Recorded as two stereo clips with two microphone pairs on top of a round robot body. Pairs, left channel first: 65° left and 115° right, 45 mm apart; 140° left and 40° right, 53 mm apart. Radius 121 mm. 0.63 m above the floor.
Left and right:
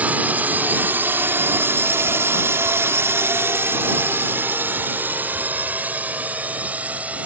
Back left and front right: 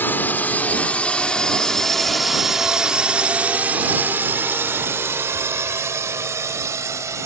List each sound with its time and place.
0.0 s a drone: 170° right; by 7.3 s 60° right